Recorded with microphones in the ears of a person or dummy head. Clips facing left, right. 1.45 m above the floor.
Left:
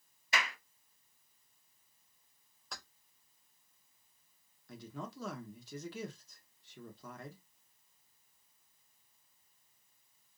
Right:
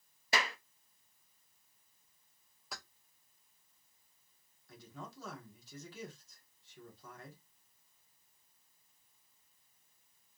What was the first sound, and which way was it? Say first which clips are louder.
A clap: right 2 dB; 35° right (ahead or behind).